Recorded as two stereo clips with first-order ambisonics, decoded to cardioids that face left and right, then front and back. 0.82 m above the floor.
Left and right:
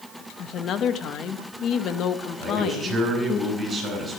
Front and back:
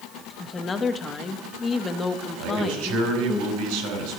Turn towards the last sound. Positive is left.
turn(degrees=-175)